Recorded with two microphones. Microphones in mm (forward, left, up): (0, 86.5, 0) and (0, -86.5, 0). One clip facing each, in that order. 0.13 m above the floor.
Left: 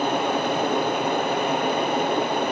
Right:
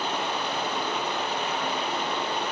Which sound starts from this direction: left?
Running water, at 0.0 s.